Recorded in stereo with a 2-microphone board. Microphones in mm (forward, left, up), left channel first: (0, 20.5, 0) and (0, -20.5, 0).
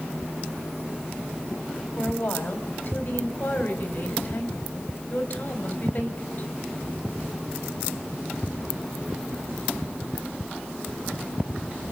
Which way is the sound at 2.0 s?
40° left (ahead or behind).